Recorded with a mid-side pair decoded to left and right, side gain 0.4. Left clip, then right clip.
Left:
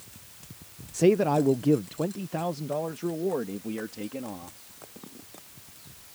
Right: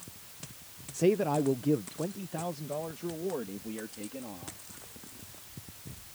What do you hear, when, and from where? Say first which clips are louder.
0.9 s a man speaking: left 5 dB; 35° left; by 4.6 s 45° left